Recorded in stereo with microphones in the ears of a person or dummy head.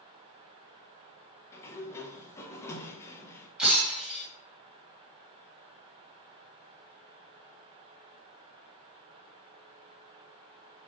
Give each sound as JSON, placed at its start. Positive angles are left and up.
{"t": 1.5, "sound": "a sliding door", "side_deg": 20, "distance_m": 1.0}
{"t": 3.6, "sound": "breaking glass", "side_deg": -5, "distance_m": 2.5}